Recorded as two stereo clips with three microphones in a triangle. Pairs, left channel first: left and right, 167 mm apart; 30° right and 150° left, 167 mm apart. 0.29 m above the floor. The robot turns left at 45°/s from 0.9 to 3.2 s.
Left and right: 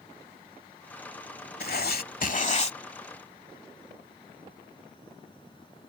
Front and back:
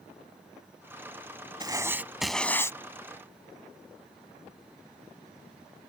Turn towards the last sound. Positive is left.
turn(degrees=20)